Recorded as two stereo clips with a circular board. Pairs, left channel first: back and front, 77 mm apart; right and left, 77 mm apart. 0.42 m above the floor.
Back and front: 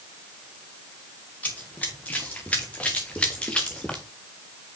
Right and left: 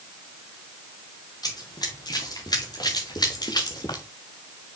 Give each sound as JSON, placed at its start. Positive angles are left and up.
{"t": 1.4, "sound": "running footsteps", "azimuth_deg": -110, "distance_m": 4.0}